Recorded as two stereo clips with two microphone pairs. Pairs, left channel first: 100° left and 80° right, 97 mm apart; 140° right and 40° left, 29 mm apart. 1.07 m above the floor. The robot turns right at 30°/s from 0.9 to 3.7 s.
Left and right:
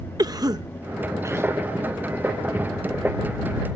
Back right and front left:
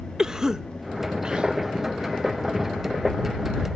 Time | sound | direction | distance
0.2 | a cough | 30° right | ?